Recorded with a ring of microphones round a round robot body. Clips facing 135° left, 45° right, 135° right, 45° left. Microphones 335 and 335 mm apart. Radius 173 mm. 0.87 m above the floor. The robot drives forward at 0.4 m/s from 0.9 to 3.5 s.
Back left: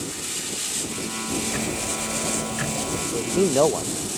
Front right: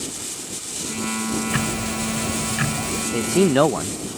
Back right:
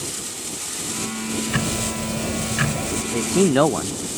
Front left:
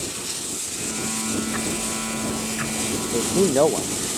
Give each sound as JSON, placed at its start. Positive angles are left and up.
{"t": 1.5, "sound": "ticking", "azimuth_deg": -100}
{"t": 3.1, "sound": "a man speaking", "azimuth_deg": -70}